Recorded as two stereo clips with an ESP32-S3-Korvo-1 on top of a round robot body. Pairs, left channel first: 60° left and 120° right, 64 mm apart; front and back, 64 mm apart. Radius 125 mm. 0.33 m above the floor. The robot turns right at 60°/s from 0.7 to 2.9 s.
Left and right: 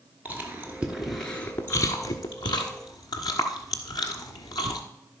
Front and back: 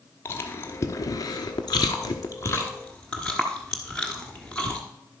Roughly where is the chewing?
Ahead right.